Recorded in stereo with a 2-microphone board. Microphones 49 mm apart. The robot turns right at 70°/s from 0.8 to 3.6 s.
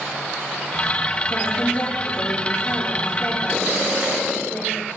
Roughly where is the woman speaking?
Ahead.